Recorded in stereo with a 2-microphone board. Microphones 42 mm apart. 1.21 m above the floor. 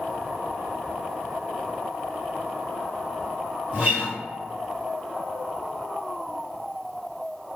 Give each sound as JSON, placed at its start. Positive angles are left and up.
{"t": 3.7, "sound": "a guitar", "side_deg": -30, "distance_m": 1.1}